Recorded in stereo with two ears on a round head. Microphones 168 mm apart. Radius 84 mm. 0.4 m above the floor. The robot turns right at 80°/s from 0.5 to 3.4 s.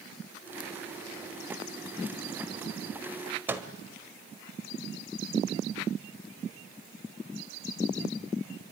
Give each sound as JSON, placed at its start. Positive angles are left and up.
{"t": 3.5, "sound": "a microwave", "side_deg": -10, "distance_m": 1.5}